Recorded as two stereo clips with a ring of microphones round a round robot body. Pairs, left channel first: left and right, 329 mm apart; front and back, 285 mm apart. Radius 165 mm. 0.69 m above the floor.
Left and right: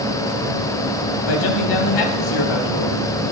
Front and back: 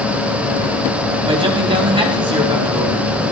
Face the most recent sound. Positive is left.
turn(degrees=105)